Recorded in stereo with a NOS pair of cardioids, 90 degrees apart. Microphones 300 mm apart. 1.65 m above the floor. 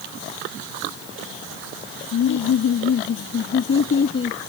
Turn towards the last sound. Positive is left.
turn(degrees=35)